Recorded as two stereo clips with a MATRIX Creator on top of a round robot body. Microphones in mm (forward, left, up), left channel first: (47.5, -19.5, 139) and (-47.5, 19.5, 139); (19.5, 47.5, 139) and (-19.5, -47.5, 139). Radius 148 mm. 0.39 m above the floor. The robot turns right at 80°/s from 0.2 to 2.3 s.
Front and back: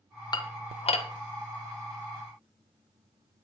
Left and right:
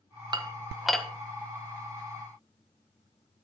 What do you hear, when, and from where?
0.3 s dishes clattering: 65° right, 1.8 m; by 1.1 s 10° right, 1.8 m